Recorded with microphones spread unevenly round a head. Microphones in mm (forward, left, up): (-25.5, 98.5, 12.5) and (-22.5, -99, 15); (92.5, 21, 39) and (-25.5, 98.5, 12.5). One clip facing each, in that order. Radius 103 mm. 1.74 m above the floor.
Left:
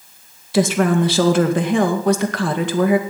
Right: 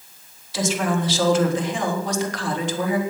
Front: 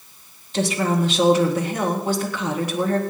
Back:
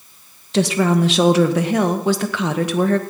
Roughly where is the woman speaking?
Behind left.